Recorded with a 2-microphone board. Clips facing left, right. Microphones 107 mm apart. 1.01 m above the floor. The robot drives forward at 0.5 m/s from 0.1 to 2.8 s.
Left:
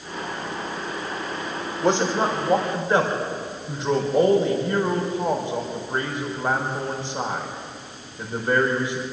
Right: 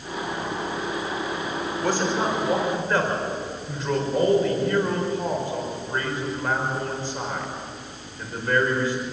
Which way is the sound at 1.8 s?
25° left (ahead or behind).